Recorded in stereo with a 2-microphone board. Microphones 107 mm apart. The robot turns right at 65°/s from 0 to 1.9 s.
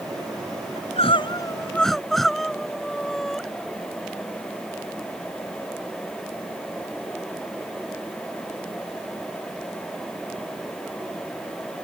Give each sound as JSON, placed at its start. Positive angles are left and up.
{"t": 0.8, "sound": "crying", "azimuth_deg": 105}